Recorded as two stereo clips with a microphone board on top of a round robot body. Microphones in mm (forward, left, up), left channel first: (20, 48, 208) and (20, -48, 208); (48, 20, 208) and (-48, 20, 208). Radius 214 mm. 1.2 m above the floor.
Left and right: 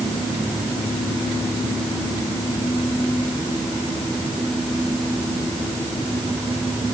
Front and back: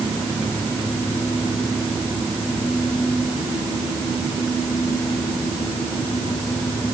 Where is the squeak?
I don't hear a squeak.